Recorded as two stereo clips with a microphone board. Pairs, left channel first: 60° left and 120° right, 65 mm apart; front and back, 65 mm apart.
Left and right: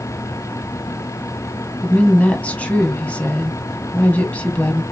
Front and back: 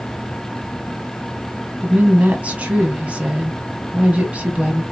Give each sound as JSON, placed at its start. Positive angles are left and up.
{"t": 1.8, "sound": "a woman speaking", "azimuth_deg": 120, "distance_m": 1.3}